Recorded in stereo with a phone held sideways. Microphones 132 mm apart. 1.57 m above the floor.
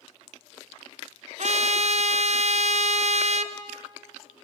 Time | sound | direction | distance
1.4 | a trumpet | 55° right (ahead or behind) | 0.7 m